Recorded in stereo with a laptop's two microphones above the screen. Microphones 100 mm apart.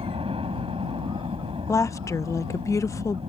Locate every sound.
0.0 s a helicopter: 70° right (ahead or behind)
1.7 s a woman speaking: 30° left (ahead or behind)